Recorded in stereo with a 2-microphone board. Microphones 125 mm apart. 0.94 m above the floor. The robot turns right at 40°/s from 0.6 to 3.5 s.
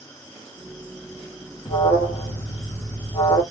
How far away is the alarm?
About 1.2 m.